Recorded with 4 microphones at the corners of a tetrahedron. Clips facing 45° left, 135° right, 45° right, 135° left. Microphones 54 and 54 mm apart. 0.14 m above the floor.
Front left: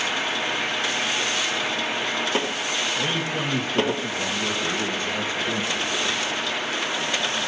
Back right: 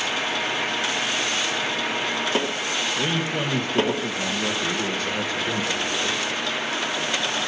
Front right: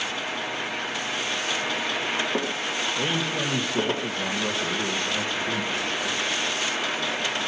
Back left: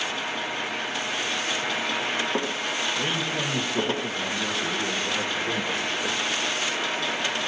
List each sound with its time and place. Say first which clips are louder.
3.0 s a man speaking: back right 1 dB, front right 1 dB; 135° right, 5 m; by 6.4 s straight behind, 3 m